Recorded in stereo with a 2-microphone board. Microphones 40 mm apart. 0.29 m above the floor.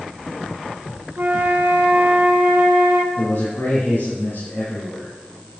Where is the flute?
60° right (ahead or behind), 1.8 m.